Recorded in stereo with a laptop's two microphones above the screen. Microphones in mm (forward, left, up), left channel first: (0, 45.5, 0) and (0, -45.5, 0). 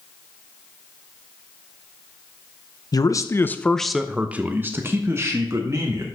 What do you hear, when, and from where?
2.9 s a man speaking: 45° left (ahead or behind), 0.7 m; by 6.0 s 35° right (ahead or behind), 1.8 m